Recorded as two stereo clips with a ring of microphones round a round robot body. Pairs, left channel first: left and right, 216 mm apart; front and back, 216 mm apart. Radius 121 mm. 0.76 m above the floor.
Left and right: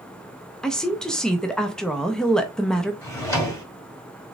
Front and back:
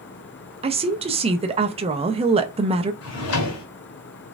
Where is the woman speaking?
175° left, 0.5 m.